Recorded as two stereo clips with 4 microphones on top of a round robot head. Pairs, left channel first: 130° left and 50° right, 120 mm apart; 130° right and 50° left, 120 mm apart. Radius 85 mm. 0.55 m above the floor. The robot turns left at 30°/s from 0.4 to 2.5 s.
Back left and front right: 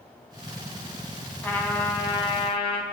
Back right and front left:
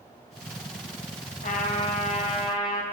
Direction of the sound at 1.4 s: 150° right.